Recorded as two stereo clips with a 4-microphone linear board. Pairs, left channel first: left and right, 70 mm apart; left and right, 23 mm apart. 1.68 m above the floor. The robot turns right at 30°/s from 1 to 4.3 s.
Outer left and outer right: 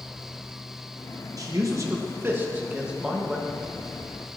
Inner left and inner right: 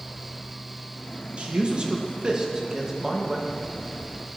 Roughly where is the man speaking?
Right.